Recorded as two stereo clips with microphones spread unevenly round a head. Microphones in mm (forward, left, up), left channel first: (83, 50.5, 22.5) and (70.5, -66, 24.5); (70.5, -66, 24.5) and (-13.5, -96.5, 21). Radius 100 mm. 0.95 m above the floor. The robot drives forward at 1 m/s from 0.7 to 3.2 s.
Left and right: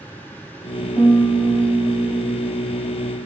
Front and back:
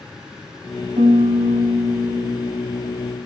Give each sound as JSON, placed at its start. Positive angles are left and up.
{"t": 1.0, "sound": "a piano", "azimuth_deg": 160, "distance_m": 1.0}